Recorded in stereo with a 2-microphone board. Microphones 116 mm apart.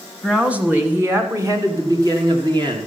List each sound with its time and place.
0.2 s a woman speaking: 5° right (ahead or behind), 1.7 m; by 2.9 s 40° right (ahead or behind), 2.5 m